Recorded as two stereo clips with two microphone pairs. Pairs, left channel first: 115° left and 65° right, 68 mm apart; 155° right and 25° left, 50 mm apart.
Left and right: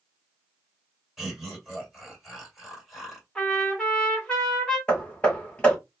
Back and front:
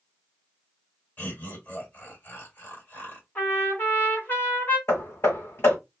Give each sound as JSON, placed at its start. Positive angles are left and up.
{"t": 1.2, "sound": "laughter", "azimuth_deg": -150, "distance_m": 1.8}
{"t": 3.4, "sound": "a trumpet", "azimuth_deg": -170, "distance_m": 1.8}
{"t": 4.9, "sound": "hammering", "azimuth_deg": -175, "distance_m": 1.4}